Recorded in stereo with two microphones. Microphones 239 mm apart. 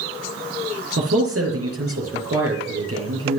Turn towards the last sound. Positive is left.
turn(degrees=-65)  # may be behind; listen again after turning